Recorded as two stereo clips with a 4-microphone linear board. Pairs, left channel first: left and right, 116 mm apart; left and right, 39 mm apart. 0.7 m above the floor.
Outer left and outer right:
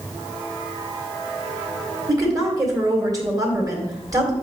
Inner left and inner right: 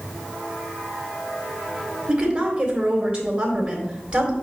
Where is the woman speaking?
30° right (ahead or behind), 2 m.